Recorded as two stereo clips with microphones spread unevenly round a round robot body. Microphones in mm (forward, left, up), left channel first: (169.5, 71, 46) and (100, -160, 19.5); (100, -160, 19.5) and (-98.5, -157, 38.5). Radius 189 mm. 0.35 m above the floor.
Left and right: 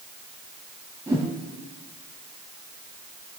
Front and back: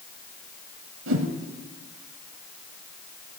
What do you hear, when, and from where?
1.1 s a whoosh: 175° left, 1.1 m